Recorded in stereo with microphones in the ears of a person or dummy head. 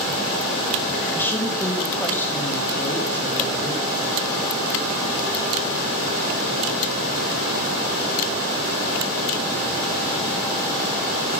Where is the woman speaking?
15° left (ahead or behind), 2 m.